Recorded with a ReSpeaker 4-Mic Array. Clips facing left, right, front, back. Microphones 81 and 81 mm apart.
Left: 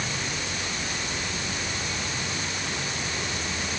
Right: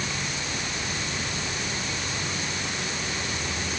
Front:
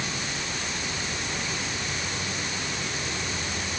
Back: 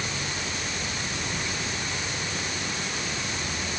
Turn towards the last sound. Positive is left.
No sound to turn to.